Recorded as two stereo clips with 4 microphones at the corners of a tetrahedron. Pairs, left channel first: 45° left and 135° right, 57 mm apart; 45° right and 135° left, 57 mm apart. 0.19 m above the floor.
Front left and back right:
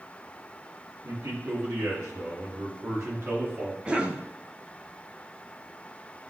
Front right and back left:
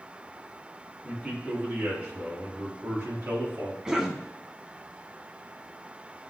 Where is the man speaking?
155° right, 4 m; by 3.8 s 175° right, 3 m.